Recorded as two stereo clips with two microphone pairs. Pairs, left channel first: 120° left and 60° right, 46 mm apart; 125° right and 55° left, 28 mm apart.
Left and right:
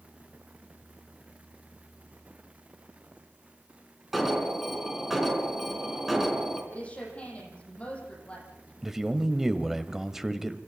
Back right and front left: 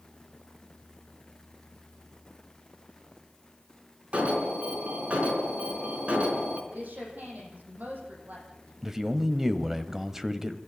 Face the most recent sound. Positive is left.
turn(degrees=10)